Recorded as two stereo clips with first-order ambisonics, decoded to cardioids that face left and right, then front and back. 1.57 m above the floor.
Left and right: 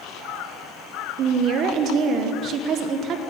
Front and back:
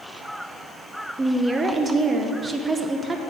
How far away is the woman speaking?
About 0.6 m.